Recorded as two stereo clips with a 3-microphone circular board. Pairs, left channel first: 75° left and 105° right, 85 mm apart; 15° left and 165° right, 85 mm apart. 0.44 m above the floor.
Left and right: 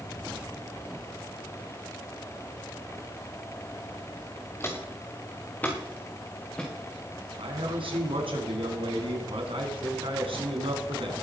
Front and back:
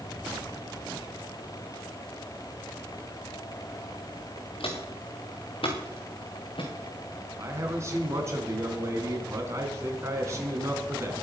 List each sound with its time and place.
4.6 s footsteps: 15° left, 2.5 m; by 6.7 s 5° right, 4 m
7.4 s a man speaking: 110° right, 3.5 m